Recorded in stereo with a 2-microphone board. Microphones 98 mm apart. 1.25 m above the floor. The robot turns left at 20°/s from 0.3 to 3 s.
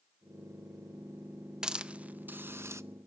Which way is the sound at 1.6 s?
5° right (ahead or behind).